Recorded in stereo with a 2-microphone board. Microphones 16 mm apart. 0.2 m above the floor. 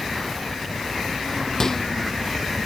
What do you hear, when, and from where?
1.6 s a microwave: 30° left (ahead or behind)